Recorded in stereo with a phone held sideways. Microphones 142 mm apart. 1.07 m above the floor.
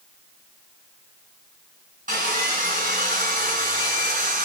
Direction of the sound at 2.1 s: 70° right (ahead or behind).